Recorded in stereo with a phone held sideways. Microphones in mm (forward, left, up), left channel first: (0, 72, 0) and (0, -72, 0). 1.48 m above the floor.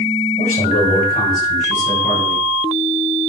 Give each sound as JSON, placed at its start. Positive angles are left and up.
{"t": 0.4, "sound": "a man speaking", "side_deg": 70, "distance_m": 6.5}